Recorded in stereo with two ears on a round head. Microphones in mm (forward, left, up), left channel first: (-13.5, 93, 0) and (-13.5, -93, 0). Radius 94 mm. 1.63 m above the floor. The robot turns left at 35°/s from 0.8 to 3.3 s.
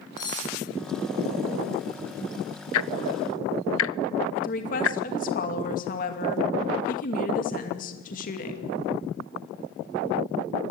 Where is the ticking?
75° left (ahead or behind), 0.5 m; by 5.0 s 65° left (ahead or behind), 0.5 m.